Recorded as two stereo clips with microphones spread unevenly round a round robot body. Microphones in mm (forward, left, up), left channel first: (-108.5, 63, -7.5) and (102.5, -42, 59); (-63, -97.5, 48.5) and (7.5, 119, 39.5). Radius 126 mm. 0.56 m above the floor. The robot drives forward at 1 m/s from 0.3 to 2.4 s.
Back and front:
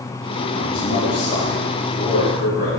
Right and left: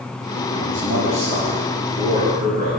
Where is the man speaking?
105° left, 4 m; by 2.7 s 130° left, 4.5 m.